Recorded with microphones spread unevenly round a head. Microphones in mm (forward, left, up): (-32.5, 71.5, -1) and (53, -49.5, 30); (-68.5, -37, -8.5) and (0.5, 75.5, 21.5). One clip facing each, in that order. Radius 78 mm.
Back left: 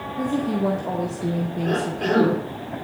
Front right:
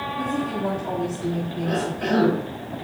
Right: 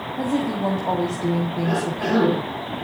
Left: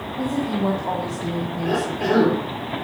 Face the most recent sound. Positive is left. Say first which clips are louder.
# back left 1 dB, left 4 dB
turn(degrees=110)